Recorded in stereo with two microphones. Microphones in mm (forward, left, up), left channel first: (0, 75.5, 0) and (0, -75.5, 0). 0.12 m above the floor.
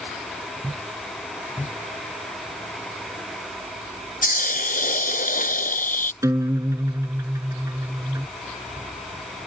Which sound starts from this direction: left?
A hiss, at 4.2 s.